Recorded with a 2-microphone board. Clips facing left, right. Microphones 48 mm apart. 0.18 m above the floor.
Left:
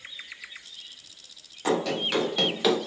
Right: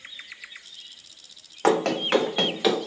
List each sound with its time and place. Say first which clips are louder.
1.6 s running footsteps: right 4 dB; 65° right (ahead or behind), 1.7 m; by 2.8 s 5° left (ahead or behind), 1.4 m